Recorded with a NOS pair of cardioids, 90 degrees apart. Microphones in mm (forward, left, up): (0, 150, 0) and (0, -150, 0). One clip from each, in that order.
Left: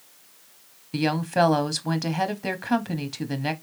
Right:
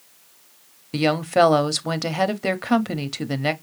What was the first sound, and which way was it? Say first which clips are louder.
A woman speaking: right 5 dB; 25° right.